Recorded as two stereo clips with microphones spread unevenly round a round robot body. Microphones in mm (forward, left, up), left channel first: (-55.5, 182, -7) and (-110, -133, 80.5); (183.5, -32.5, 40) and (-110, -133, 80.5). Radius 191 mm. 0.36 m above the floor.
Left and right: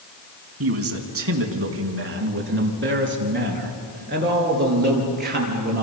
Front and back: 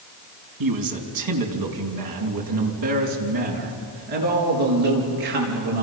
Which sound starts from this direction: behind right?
A man speaking, at 0.6 s.